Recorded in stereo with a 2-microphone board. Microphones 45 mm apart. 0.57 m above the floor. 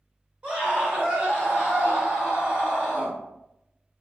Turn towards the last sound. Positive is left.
turn(degrees=-35)  # may be behind; listen again after turning